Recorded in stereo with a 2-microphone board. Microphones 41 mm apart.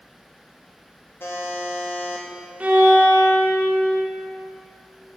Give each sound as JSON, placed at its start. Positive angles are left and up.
{"t": 1.2, "sound": "a buzzer", "side_deg": 65, "distance_m": 1.0}
{"t": 2.6, "sound": "a violin", "side_deg": -35, "distance_m": 0.7}